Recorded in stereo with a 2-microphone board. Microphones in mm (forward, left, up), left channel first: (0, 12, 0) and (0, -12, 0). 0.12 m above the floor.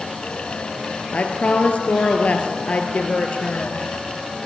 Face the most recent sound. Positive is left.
turn(degrees=50)  # may be behind; listen again after turning